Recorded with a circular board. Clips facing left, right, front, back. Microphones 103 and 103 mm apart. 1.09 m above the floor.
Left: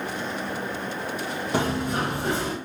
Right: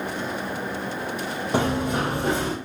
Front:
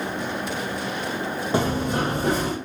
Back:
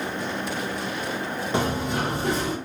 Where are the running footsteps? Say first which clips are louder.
Right 2 dB, front 2 dB; 40° right, 1.4 m; by 2.5 s 25° right, 2.0 m.